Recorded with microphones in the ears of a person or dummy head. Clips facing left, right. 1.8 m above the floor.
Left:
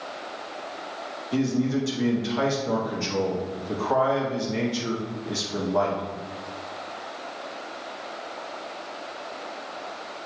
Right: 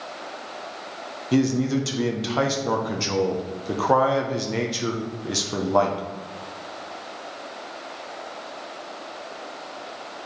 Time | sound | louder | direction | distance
1.3 | a man speaking | right 3 dB | 70° right (ahead or behind) | 1.3 m